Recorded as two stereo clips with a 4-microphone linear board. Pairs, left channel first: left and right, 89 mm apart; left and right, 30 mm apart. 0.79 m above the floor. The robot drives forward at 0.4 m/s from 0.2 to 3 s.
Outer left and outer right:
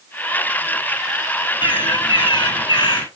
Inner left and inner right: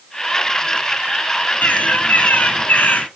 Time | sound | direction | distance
1.6 | a bird | 65° left (ahead or behind) | 3 m